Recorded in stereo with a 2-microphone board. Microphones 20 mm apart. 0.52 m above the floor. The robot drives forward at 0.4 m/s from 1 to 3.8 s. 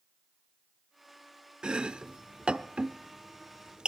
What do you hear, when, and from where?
1.6 s chopping: 45° right (ahead or behind), 0.7 m